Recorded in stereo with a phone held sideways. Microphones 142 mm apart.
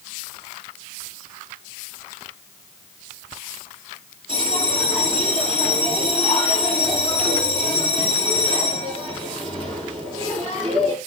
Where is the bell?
30° right (ahead or behind), 6.5 m.